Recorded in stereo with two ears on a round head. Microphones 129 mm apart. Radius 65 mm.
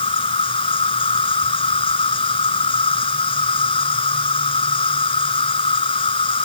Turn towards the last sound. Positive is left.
turn(degrees=35)  # may be behind; listen again after turning